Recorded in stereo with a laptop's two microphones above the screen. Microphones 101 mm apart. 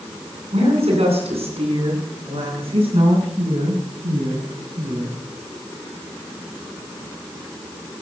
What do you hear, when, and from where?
0.5 s a woman speaking: 85° right, 8 m; by 5.2 s 60° right (ahead or behind), 8 m